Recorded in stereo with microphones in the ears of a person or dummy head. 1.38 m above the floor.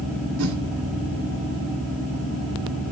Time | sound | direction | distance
0.4 | a whoosh | 80° right | 3 m